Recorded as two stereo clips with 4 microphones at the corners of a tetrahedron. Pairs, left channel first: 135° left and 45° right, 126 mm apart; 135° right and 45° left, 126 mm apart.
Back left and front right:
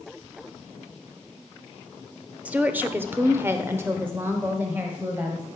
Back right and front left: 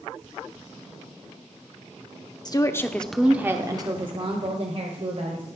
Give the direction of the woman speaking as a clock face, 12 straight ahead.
4 o'clock.